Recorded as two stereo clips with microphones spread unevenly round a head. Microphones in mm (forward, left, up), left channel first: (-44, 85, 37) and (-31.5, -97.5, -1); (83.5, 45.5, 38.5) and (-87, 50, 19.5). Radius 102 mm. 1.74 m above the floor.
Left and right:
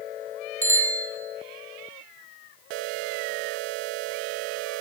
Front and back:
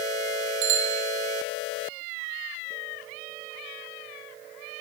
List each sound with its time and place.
0.6 s a bicycle bell: 170° left, 6.5 m